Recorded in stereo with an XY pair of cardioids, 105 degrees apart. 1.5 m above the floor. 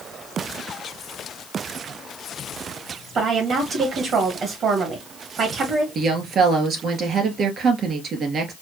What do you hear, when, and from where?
3.1 s a woman speaking: 65° right, 1.6 m
6.0 s a woman speaking: 55° right, 2 m